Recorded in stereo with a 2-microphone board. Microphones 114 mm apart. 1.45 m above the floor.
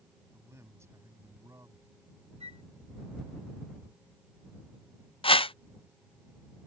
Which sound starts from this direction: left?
A whoosh, at 5.2 s.